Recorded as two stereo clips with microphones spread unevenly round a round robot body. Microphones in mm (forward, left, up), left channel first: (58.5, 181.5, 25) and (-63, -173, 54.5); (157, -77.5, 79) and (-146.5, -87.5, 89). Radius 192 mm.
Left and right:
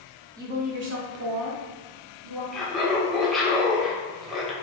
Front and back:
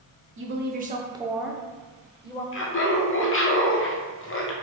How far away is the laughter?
About 0.9 m.